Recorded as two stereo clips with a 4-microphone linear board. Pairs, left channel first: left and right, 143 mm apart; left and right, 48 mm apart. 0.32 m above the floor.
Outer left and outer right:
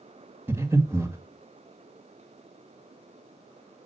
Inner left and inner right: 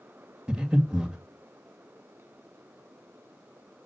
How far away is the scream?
No scream in this recording.